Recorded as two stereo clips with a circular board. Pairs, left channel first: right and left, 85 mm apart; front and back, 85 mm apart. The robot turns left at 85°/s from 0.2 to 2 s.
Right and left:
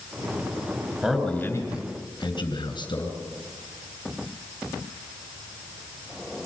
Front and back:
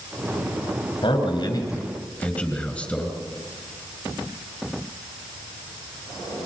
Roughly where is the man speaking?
Ahead.